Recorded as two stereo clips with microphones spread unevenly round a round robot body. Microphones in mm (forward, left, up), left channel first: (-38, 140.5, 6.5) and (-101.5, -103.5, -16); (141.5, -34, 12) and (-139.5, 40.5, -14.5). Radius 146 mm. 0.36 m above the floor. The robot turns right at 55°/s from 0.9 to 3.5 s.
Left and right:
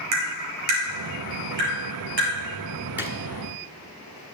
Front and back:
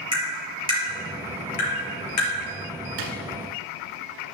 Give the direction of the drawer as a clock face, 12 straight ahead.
6 o'clock.